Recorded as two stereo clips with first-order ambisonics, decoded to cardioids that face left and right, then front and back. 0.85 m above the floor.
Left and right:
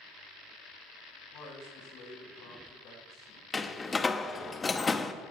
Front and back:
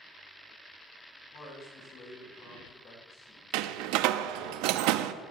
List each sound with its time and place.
1.3 s a man speaking: 60° left, 5.5 m
3.5 s a door slam: 165° left, 0.5 m